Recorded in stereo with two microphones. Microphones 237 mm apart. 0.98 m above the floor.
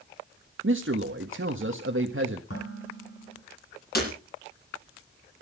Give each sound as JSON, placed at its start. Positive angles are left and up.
{"t": 0.6, "sound": "a man speaking", "side_deg": -60, "distance_m": 1.3}
{"t": 2.5, "sound": "dishes clattering", "side_deg": 65, "distance_m": 7.5}
{"t": 4.0, "sound": "breaking glass", "side_deg": 40, "distance_m": 7.0}